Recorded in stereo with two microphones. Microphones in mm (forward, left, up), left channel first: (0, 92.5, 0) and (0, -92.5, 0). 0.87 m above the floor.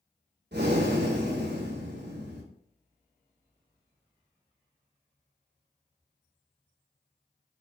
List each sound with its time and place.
0.5 s breathing: 70° right (ahead or behind), 1.1 m